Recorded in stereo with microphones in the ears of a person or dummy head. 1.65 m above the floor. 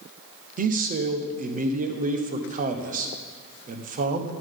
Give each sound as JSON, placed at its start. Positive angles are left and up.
{"t": 0.6, "sound": "a man speaking", "side_deg": -35, "distance_m": 1.0}